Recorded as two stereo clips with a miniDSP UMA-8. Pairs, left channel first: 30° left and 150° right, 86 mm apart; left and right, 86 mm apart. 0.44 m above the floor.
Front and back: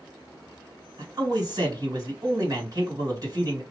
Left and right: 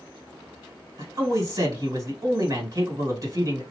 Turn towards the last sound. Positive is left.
turn(degrees=-125)